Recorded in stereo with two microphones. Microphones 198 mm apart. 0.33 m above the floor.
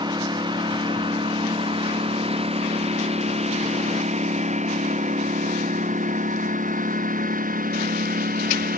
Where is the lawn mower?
25° right (ahead or behind); by 8.8 s 50° right (ahead or behind).